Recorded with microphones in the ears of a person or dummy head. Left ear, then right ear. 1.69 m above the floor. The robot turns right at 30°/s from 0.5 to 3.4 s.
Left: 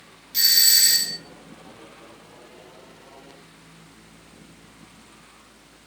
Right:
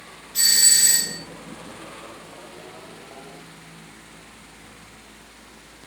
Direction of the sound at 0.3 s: 30° left (ahead or behind).